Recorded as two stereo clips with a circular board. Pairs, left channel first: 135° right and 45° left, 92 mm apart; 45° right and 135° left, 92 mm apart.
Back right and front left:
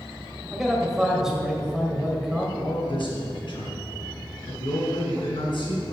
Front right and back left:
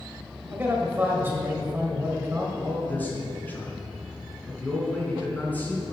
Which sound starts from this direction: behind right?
A man speaking, at 2.6 s.